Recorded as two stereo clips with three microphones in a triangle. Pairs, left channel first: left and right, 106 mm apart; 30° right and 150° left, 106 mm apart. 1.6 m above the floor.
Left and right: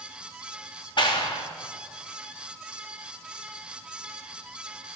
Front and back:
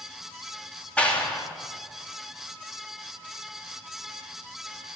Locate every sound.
1.0 s a clap: 50° left, 3 m